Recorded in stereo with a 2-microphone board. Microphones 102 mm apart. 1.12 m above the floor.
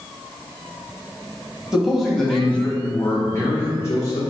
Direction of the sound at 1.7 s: 5° right (ahead or behind).